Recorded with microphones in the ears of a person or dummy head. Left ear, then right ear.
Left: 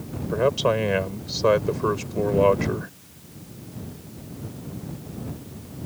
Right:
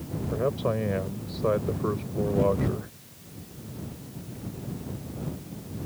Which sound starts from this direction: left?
A man speaking, at 0.3 s.